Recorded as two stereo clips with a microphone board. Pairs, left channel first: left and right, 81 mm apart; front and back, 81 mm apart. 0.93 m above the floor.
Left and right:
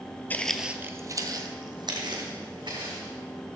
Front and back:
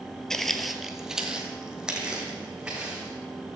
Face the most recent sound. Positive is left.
turn(degrees=-100)